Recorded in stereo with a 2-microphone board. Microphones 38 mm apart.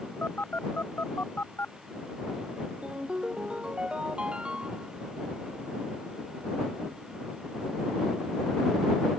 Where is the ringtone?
25° right (ahead or behind).